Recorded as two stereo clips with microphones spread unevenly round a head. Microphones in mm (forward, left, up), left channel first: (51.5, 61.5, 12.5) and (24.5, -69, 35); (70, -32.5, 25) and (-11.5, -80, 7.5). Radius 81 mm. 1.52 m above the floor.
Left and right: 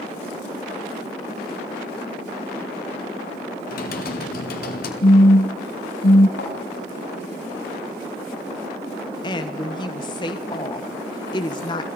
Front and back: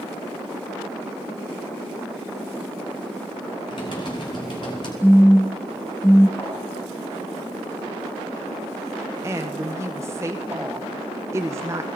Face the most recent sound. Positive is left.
turn(degrees=140)